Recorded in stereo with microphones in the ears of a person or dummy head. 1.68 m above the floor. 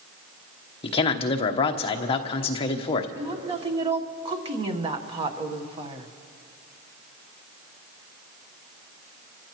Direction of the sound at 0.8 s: 35° left (ahead or behind).